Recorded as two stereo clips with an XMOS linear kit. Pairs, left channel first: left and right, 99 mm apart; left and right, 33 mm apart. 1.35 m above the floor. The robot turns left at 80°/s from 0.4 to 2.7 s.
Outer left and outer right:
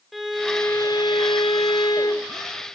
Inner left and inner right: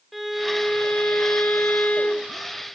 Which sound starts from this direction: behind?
A violin, at 0.1 s.